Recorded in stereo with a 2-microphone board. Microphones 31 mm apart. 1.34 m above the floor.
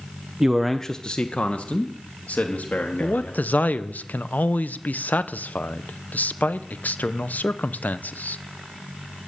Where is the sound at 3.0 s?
65° left (ahead or behind), 0.9 m.